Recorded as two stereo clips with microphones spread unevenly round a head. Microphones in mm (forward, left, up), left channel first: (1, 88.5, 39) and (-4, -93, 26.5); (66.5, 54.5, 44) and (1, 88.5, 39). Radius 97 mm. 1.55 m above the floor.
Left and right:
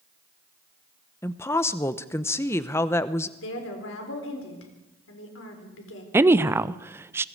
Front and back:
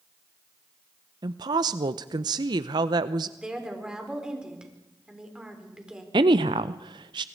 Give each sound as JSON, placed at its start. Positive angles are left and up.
{"t": 1.2, "sound": "a woman speaking", "azimuth_deg": 160, "distance_m": 0.7}
{"t": 3.4, "sound": "a woman speaking", "azimuth_deg": 75, "distance_m": 4.5}
{"t": 6.1, "sound": "a woman speaking", "azimuth_deg": -170, "distance_m": 0.6}